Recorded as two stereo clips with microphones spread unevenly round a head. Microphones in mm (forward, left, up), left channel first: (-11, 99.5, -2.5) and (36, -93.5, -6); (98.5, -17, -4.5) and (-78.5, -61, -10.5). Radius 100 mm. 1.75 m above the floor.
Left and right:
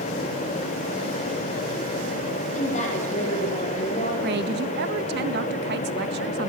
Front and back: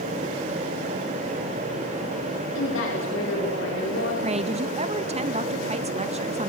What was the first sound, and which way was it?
A woman speaking, 45° left.